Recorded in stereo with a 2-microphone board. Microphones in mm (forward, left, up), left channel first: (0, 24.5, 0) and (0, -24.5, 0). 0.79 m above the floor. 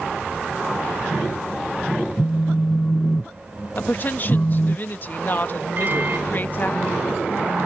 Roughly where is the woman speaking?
Left.